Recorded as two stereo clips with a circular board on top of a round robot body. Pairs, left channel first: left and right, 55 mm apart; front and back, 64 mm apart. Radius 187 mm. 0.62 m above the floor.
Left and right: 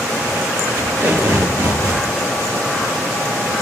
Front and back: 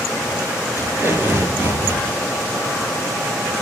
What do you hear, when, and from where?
0.8 s tape being pulled: 120° right, 8.5 m